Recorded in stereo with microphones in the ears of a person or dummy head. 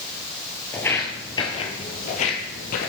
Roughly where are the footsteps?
Centre.